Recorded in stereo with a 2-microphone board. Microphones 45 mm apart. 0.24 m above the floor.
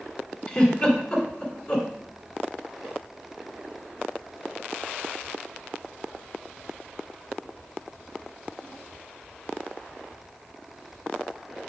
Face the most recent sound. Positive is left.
turn(degrees=30)  # may be behind; listen again after turning